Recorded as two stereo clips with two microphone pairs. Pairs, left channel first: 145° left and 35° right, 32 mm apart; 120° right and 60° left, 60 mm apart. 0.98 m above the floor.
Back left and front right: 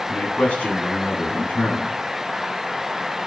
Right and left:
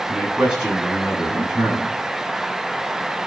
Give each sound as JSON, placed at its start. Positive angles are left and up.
{"t": 0.1, "sound": "a man speaking", "azimuth_deg": 140, "distance_m": 8.5}